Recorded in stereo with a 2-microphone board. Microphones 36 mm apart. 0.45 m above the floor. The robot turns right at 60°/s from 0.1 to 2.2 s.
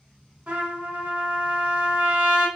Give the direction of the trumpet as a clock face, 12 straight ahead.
5 o'clock.